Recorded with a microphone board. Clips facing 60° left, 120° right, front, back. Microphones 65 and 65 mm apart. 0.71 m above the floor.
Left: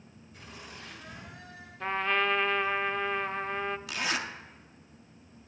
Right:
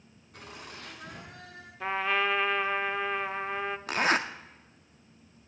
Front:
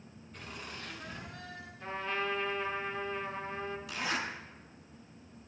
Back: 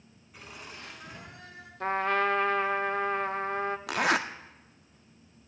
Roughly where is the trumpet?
Behind left.